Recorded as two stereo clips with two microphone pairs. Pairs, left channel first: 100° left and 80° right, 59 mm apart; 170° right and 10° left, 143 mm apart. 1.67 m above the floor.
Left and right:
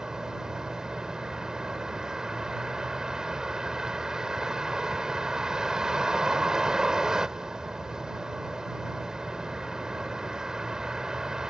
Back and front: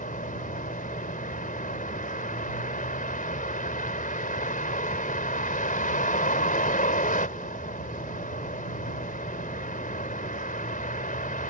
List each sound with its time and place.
0.0 s a vehicle: 160° right